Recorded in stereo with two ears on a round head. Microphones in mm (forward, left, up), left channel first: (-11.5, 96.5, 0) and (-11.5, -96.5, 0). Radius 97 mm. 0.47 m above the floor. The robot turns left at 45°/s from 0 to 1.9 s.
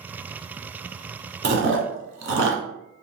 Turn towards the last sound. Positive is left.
turn(degrees=-60)  # may be behind; listen again after turning